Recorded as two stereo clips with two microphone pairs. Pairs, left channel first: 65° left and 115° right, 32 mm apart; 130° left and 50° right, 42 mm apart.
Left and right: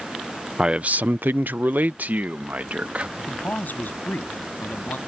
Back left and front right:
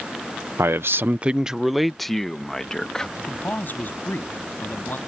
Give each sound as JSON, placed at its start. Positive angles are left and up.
{"t": 0.6, "sound": "a man speaking", "azimuth_deg": -50}
{"t": 3.2, "sound": "a man speaking", "azimuth_deg": 90}